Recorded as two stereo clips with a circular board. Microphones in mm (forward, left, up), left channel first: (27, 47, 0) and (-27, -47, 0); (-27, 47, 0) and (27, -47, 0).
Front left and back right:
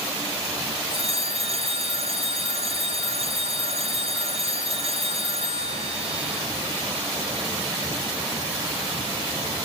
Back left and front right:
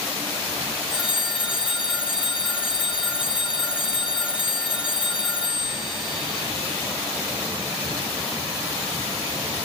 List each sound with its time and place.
0.9 s a phone ringing: 140° right, 2 m